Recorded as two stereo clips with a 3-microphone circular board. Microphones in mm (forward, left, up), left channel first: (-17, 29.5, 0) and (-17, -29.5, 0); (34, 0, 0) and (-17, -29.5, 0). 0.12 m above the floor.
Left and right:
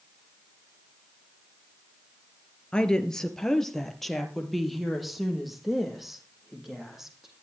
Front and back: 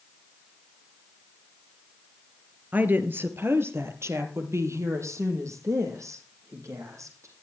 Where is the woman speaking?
160° left, 2 m; by 7.3 s 175° right, 6.5 m.